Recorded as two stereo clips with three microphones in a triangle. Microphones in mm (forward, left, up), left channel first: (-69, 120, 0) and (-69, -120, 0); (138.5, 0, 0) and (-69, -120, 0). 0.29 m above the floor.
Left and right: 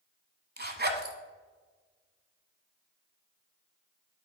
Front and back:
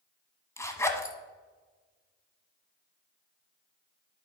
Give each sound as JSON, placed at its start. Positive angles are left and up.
{"t": 0.6, "sound": "a zipper", "azimuth_deg": -50, "distance_m": 0.8}